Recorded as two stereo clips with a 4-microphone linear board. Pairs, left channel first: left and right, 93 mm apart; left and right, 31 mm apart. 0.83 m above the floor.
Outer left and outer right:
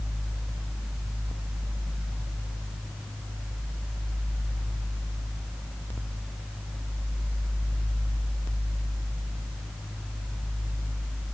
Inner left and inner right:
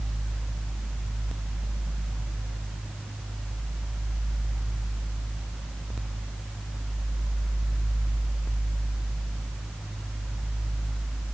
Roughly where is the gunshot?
I don't hear a gunshot.